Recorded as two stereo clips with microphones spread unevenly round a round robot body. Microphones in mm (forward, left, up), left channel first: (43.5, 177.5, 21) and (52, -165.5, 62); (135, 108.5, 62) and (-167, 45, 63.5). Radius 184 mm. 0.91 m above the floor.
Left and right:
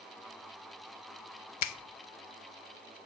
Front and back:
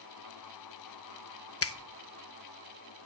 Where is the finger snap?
55° left, 0.8 m.